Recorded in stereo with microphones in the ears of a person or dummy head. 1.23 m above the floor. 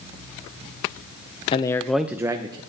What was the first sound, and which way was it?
A man speaking, 30° left (ahead or behind).